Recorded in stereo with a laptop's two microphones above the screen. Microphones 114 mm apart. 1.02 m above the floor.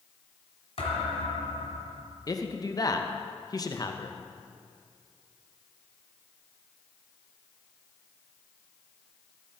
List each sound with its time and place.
0.8 s a thud: 60° left (ahead or behind), 2 m
2.3 s a man speaking: 35° left (ahead or behind), 0.7 m